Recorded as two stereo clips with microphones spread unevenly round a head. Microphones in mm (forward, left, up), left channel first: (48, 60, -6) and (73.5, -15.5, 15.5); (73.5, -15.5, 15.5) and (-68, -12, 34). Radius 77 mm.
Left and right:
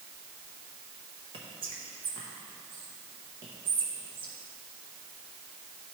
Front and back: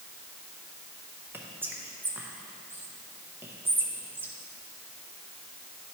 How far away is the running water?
No running water in this recording.